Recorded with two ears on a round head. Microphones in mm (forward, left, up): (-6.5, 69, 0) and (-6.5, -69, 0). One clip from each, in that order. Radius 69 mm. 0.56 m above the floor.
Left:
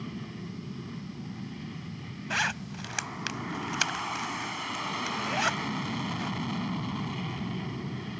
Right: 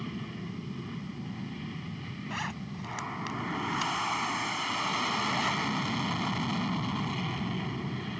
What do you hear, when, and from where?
0.0 s an aircraft: 15° right (ahead or behind)
2.3 s a zipper: 55° left (ahead or behind)